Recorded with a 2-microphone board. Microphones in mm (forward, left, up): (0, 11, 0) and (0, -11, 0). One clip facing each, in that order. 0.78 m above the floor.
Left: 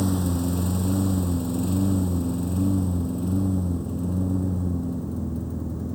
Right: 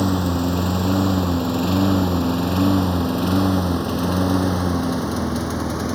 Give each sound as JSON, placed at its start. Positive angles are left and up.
{"t": 0.0, "sound": "a lawn mower", "side_deg": -35}